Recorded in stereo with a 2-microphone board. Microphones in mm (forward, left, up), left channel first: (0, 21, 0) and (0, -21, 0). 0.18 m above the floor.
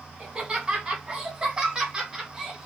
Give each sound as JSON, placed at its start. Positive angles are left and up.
{"t": 0.2, "sound": "laughter", "side_deg": -25, "distance_m": 1.9}